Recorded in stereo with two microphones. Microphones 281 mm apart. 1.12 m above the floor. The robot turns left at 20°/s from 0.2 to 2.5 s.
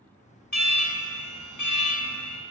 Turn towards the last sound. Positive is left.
turn(degrees=70)